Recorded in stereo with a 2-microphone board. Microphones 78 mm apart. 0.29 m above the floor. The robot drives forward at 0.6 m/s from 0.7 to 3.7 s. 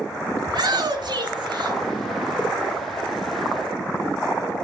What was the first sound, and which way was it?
A shout, 65° right (ahead or behind).